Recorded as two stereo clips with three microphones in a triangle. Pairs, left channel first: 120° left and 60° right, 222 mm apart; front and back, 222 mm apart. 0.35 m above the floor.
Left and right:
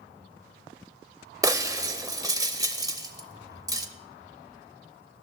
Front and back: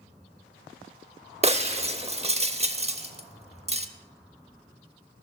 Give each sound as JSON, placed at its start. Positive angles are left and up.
{"t": 1.4, "sound": "breaking glass", "azimuth_deg": -130, "distance_m": 0.6}